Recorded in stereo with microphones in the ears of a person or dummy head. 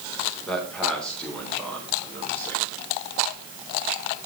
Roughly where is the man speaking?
Centre.